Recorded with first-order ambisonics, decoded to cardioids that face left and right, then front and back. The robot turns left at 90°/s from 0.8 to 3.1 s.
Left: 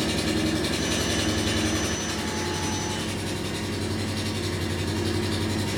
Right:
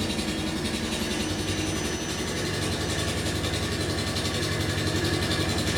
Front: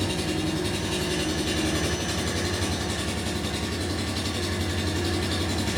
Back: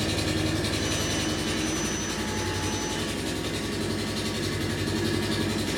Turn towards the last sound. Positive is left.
turn(degrees=-85)